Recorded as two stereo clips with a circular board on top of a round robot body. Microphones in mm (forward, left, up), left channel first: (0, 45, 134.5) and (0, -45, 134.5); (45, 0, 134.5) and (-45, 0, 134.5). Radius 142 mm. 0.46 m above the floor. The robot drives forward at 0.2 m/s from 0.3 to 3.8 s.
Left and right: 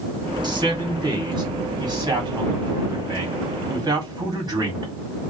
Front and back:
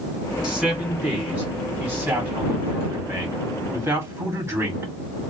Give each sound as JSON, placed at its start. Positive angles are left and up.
{"t": 0.4, "sound": "a man speaking", "azimuth_deg": -95, "distance_m": 1.8}